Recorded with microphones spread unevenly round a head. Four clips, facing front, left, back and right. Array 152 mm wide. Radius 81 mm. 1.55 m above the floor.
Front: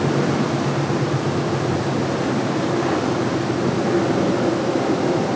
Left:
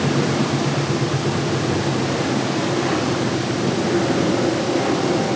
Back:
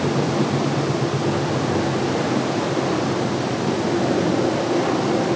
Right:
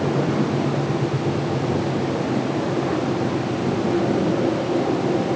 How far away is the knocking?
No knocking in this recording.